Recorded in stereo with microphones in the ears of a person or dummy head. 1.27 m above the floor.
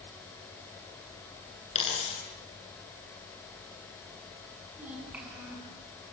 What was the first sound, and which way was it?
A dropped coin, 30° left (ahead or behind).